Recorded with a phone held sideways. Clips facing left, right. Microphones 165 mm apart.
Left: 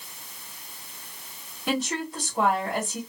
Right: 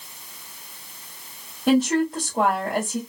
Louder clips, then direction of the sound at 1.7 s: Right 10 dB; 50° right (ahead or behind).